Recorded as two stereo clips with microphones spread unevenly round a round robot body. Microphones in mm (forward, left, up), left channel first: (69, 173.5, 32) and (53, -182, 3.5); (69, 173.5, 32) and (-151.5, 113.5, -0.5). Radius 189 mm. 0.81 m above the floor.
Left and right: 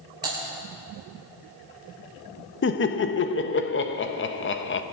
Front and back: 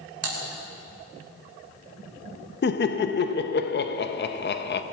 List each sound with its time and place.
0.2 s typing on a keyboard: 175° right, 2.5 m
2.6 s laughter: 40° left, 0.8 m